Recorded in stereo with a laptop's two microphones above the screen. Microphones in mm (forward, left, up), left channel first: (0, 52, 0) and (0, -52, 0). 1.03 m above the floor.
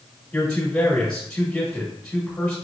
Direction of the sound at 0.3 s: 20° left (ahead or behind).